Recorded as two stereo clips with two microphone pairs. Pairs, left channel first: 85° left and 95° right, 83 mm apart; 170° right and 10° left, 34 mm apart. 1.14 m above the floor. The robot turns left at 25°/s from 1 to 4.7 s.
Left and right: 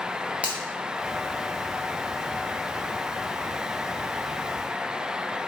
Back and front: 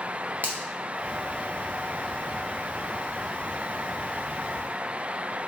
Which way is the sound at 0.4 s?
15° right.